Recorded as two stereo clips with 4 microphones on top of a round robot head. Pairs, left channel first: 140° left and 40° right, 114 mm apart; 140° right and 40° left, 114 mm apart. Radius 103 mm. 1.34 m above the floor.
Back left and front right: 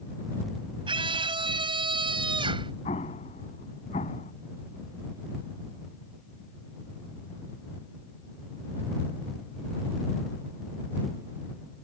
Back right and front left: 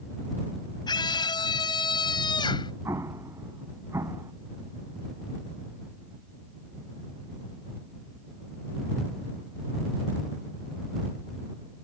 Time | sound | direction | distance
0.9 | a scream | 90° right | ?
2.9 | an explosion | 110° left | ?